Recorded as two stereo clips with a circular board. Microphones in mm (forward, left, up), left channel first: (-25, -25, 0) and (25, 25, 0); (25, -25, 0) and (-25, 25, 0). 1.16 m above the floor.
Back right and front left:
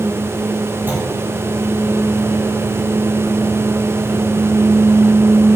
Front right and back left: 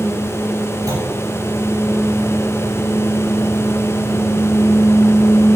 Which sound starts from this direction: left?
A clunk, at 0.9 s.